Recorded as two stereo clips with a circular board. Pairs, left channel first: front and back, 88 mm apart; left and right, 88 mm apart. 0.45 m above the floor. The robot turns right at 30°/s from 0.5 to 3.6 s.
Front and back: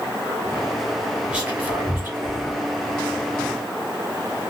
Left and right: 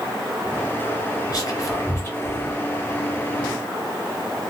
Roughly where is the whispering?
Left.